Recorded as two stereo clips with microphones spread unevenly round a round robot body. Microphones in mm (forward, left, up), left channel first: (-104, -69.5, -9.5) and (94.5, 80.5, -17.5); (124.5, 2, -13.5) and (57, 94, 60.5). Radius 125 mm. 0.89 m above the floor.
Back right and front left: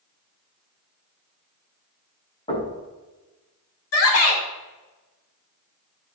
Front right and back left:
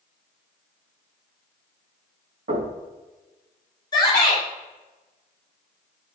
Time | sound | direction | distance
2.5 | knocking | 150° left | 4.5 m
3.9 | a shout | 110° right | 2.5 m